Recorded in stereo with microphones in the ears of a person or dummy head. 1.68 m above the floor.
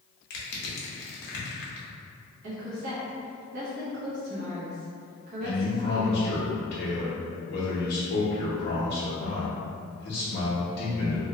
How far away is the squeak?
I don't hear a squeak.